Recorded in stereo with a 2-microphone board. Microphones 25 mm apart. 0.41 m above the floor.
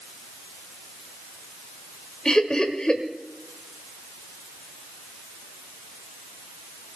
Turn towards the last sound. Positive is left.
turn(degrees=30)  # may be behind; listen again after turning